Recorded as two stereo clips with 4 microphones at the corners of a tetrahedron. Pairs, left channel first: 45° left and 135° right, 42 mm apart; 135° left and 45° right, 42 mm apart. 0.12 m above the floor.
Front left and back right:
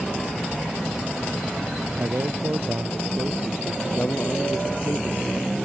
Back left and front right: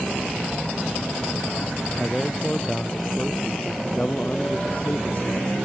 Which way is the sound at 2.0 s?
150° right.